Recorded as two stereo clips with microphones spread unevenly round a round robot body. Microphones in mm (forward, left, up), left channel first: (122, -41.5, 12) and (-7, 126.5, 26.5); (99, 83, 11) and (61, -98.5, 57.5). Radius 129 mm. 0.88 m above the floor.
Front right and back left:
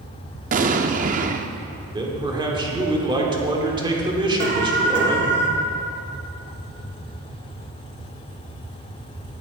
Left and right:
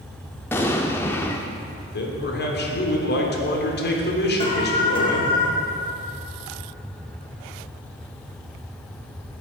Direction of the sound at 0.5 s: 170° left.